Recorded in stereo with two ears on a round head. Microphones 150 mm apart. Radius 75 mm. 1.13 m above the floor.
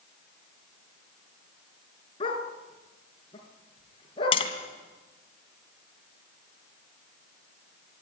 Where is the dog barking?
30° left (ahead or behind), 4 m.